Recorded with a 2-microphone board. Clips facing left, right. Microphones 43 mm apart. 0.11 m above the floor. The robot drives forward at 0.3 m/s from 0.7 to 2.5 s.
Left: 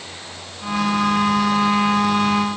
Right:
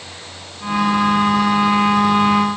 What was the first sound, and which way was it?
Only background noise.